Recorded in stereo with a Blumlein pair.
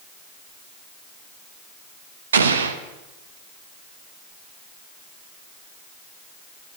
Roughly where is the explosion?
Right.